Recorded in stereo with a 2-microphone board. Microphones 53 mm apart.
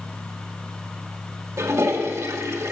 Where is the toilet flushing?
70° right (ahead or behind), 1.9 m.